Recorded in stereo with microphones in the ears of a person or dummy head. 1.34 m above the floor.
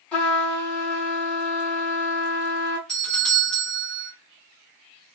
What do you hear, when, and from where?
0.1 s a trumpet: 10° left (ahead or behind), 2 m
2.9 s a doorbell: centre (ahead or behind), 1.3 m